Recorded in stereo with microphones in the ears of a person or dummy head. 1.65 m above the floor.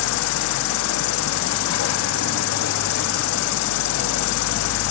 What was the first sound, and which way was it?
An insect, 75° left (ahead or behind).